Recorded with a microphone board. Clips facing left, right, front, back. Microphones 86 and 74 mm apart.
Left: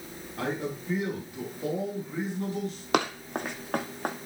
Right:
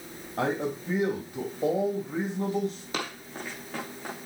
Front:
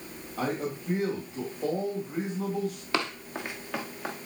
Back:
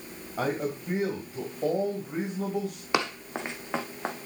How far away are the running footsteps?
About 1.5 m.